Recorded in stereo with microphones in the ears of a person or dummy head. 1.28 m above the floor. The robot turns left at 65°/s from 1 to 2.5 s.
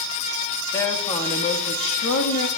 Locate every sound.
0.7 s a woman speaking: 160° left, 1.9 m; by 2.5 s 65° left, 1.9 m